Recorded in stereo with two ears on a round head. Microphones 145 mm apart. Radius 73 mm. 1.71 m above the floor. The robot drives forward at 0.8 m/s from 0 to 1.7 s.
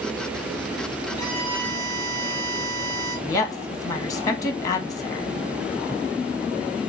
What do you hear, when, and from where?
1.2 s a violin: 35° right (ahead or behind), 1.7 m; by 3.2 s 30° right (ahead or behind), 2 m
3.3 s a woman speaking: 25° left (ahead or behind), 0.9 m